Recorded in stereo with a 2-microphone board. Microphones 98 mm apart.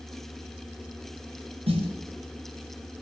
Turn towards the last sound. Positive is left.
turn(degrees=-85)